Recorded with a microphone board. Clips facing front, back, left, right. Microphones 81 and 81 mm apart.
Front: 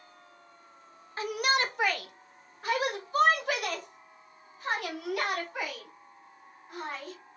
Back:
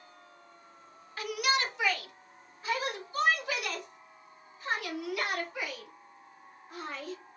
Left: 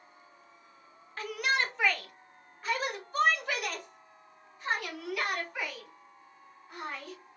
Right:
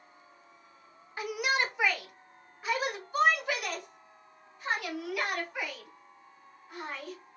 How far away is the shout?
About 0.7 m.